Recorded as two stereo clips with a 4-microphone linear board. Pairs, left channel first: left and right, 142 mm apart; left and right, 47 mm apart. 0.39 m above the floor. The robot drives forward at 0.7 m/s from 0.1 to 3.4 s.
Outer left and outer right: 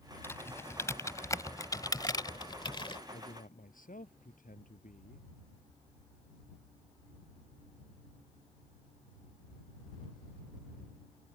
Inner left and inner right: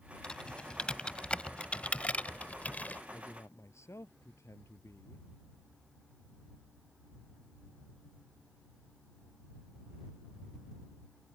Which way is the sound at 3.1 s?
70° left (ahead or behind).